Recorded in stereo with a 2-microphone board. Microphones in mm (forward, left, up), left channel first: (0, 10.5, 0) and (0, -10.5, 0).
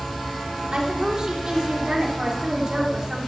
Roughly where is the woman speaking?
Right.